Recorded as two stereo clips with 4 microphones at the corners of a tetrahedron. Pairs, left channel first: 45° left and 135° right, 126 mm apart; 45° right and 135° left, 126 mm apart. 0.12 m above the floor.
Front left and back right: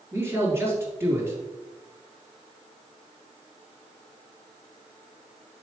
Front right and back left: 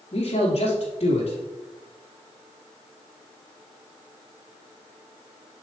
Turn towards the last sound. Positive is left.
turn(degrees=-70)